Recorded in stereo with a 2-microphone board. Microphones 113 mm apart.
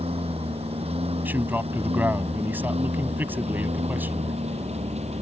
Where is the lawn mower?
60° right (ahead or behind); by 5.2 s 70° right (ahead or behind).